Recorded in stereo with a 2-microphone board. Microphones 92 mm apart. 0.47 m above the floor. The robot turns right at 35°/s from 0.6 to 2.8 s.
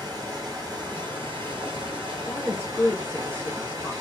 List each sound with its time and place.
0.0 s running water: 135° right, 1.5 m; by 4.0 s 55° right, 1.5 m
2.3 s a woman speaking: 25° left (ahead or behind), 0.9 m; by 3.9 s 15° left (ahead or behind), 0.9 m